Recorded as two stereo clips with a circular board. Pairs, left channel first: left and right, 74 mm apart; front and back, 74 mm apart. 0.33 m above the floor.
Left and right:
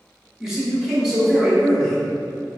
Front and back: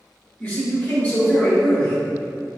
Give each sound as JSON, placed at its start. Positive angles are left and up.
{"t": 0.4, "sound": "a man speaking", "azimuth_deg": -20, "distance_m": 1.1}